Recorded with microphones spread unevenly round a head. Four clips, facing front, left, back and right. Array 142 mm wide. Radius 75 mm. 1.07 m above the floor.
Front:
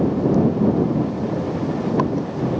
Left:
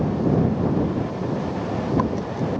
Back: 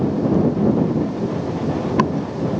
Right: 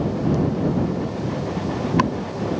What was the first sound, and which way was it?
Only background noise.